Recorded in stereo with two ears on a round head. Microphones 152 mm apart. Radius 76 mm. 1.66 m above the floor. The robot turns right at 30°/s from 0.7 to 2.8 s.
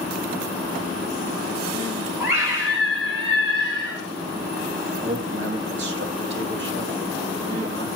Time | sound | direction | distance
2.2 | a scream | centre (ahead or behind) | 5 m
5.0 | a man speaking | 75° right (ahead or behind) | 2.5 m